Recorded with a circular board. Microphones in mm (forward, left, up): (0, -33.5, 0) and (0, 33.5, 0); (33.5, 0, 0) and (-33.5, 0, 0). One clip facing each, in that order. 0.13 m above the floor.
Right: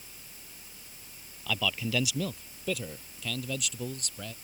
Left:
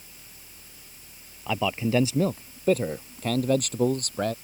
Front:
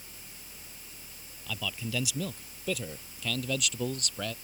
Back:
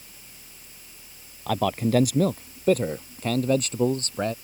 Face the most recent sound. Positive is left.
turn(degrees=125)